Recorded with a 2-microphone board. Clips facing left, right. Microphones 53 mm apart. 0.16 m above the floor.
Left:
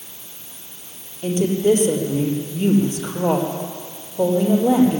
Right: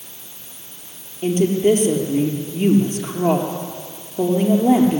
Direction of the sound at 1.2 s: 45° right (ahead or behind).